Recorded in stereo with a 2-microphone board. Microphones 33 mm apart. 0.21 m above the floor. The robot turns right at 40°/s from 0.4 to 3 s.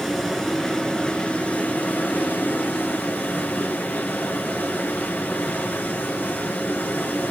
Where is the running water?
10° left, 3 m; by 7.3 s 115° left, 3 m.